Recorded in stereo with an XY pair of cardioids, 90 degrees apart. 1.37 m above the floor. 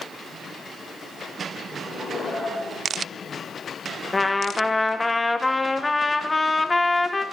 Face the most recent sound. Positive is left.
turn(degrees=20)